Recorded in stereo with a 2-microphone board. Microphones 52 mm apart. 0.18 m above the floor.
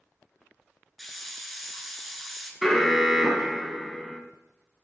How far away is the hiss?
About 1.4 m.